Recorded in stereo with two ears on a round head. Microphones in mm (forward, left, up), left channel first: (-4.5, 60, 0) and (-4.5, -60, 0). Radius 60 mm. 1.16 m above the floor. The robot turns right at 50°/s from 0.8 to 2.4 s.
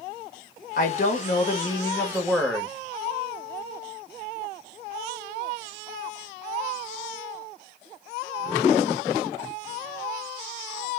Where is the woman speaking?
100° left, 0.9 m; by 2.7 s straight behind, 0.9 m.